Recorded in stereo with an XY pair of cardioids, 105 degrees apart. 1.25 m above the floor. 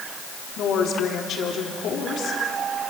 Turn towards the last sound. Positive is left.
turn(degrees=70)